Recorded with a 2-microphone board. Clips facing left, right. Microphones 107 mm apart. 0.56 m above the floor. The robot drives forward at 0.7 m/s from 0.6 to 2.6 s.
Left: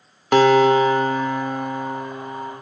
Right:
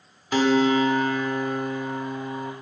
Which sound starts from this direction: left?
A guitar, at 0.3 s.